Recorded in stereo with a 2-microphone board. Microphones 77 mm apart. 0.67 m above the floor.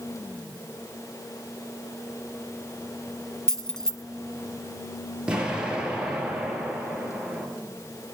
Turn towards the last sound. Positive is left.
turn(degrees=-15)  # may be behind; listen again after turning